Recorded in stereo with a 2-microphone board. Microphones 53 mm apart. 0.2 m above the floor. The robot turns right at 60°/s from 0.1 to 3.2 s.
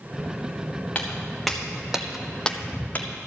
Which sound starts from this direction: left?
Footsteps, at 0.9 s.